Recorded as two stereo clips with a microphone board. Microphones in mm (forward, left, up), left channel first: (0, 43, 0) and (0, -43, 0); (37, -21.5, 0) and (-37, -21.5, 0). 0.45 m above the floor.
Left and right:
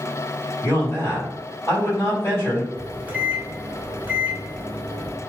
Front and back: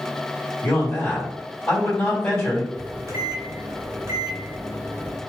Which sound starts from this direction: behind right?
A microwave, at 2.8 s.